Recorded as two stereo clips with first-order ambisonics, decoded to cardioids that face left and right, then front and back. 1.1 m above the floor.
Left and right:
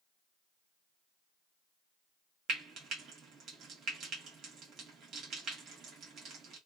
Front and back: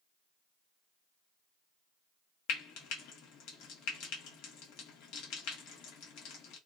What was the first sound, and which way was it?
Frying, 30° right.